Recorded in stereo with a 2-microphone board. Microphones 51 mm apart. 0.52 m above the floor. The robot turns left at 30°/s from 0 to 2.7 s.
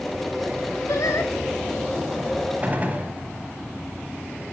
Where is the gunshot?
30° right (ahead or behind), 1.0 m; by 3.1 s 35° right (ahead or behind), 1.0 m.